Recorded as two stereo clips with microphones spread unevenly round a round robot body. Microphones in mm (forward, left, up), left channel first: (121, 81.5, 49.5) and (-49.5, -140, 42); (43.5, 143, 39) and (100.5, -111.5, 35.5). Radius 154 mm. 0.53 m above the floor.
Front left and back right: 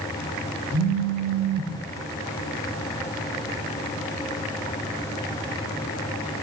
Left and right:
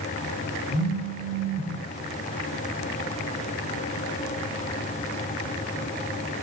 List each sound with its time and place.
0.7 s a phone buzzing: 120° left, 2.5 m